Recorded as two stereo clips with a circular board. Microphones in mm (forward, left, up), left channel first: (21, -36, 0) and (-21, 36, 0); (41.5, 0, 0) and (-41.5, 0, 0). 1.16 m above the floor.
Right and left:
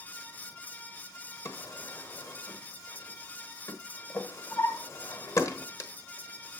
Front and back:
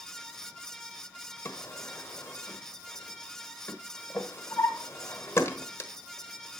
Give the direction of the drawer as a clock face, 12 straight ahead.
1 o'clock.